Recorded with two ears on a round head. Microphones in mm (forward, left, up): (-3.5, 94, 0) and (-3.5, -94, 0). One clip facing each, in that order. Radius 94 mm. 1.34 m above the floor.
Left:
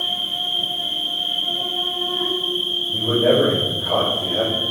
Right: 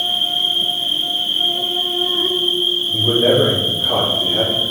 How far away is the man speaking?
About 3.5 m.